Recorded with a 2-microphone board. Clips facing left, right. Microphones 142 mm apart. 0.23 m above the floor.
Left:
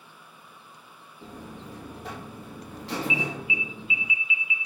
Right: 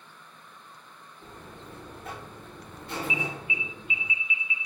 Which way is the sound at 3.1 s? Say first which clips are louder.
Left 3 dB; 35° right (ahead or behind).